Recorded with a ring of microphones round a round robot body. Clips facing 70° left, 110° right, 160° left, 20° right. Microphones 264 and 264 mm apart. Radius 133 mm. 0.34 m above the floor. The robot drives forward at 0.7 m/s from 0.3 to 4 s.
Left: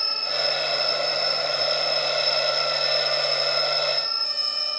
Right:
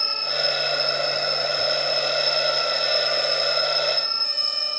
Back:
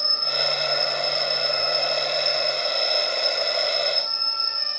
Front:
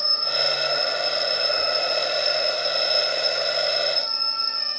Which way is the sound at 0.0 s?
105° left.